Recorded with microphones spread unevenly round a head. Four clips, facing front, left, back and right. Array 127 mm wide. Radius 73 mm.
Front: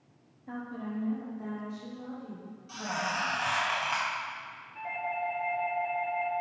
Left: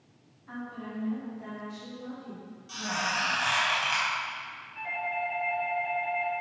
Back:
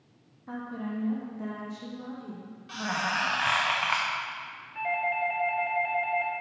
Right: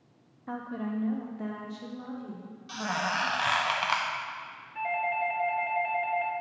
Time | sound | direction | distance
0.5 | a woman speaking | 95° right | 0.6 m
2.7 | a squeak | 85° right | 0.5 m
4.8 | a doorbell | 150° right | 1.3 m